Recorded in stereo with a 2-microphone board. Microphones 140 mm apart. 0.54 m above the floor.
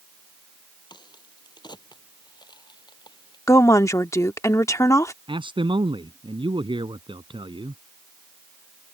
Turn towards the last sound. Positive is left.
turn(degrees=-35)  # may be behind; listen again after turning